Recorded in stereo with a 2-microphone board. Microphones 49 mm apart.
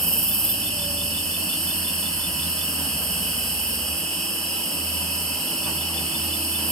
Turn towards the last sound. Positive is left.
turn(degrees=10)  # may be behind; listen again after turning